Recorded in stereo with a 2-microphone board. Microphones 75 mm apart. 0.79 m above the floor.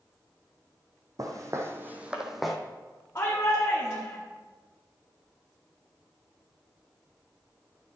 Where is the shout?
40° left (ahead or behind), 1.7 m.